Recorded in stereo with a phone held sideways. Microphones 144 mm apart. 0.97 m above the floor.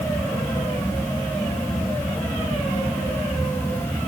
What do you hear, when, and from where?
0.0 s a fan: 15° left (ahead or behind), 1.4 m